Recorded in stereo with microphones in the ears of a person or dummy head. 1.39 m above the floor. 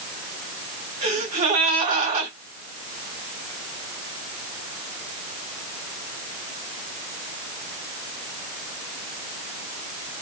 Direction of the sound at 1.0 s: 30° right (ahead or behind).